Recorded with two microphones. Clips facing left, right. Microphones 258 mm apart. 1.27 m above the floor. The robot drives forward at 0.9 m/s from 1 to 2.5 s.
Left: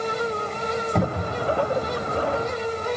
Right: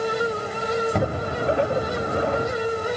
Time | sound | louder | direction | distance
0.9 | a cupboard door | even | 5° right (ahead or behind) | 1.7 m